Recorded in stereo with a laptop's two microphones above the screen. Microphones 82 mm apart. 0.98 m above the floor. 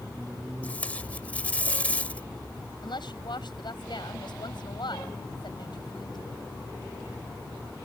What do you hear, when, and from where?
0.6 s tape being pulled: 20° left (ahead or behind)
2.8 s a woman speaking: 65° left (ahead or behind)